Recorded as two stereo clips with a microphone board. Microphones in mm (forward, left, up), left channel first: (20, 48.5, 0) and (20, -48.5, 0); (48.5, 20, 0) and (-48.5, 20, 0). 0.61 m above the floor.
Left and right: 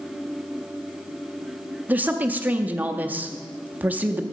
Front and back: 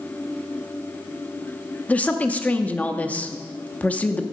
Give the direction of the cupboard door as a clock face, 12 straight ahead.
No cupboard door in this recording.